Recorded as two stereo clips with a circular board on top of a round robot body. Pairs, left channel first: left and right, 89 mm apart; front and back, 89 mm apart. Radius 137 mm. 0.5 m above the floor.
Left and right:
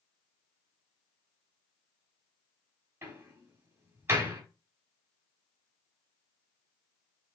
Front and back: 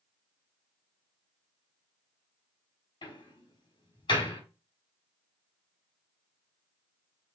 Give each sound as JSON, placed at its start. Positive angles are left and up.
{"t": 3.0, "sound": "a door slam", "azimuth_deg": -30, "distance_m": 3.0}